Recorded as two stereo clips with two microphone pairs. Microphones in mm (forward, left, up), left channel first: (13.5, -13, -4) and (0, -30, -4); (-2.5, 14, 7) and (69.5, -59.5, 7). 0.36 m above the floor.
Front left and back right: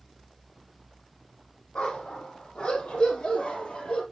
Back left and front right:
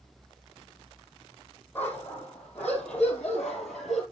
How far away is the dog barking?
About 5.5 m.